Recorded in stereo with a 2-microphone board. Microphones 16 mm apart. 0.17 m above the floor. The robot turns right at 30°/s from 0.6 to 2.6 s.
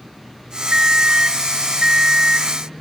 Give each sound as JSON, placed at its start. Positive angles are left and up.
{"t": 0.7, "sound": "an alarm clock", "azimuth_deg": -90, "distance_m": 0.8}